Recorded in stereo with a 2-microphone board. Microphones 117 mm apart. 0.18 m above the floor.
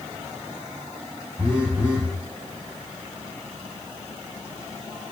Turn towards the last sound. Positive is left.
turn(degrees=-10)  # may be behind; listen again after turning